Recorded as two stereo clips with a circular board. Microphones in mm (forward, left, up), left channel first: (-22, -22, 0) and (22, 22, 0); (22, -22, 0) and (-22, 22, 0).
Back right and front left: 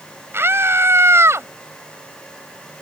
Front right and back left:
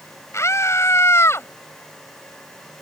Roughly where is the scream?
Ahead.